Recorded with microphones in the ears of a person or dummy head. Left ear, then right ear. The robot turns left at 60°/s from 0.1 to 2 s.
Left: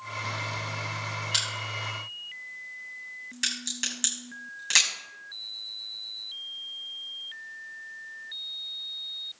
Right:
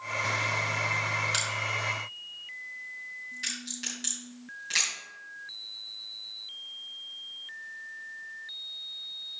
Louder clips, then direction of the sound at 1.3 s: Even; 5° left (ahead or behind).